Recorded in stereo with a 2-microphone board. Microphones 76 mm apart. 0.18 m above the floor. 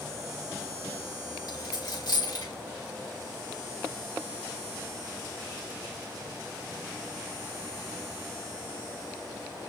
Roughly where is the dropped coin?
Left.